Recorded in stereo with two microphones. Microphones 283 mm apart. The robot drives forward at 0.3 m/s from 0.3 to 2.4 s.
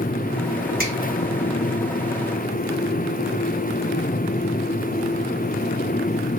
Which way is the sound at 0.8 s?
30° right (ahead or behind).